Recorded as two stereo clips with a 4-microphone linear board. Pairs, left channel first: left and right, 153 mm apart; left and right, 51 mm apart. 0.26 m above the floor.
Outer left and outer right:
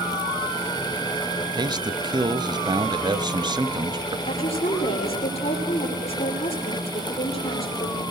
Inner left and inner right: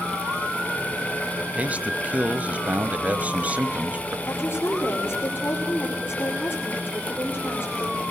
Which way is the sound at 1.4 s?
30° right (ahead or behind).